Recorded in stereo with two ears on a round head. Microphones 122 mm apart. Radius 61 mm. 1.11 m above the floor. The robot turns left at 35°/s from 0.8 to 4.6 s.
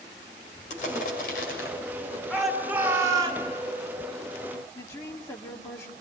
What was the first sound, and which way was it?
Crushing, 60° left (ahead or behind).